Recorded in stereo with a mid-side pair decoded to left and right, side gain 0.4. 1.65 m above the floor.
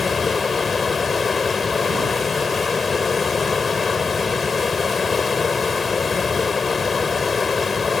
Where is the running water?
40° left.